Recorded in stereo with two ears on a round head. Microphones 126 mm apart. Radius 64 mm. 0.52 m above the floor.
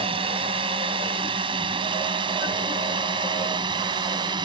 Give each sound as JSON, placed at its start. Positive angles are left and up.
{"t": 0.0, "sound": "a drone", "side_deg": -40}